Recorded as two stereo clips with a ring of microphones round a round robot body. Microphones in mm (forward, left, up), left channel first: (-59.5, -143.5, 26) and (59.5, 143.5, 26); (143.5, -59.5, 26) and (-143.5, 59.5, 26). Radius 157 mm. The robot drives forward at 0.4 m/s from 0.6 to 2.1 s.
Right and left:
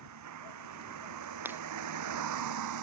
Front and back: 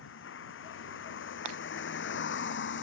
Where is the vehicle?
30° left; by 2.8 s 35° left.